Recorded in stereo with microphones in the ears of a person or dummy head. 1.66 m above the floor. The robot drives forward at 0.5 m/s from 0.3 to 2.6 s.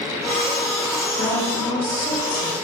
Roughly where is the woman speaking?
Left.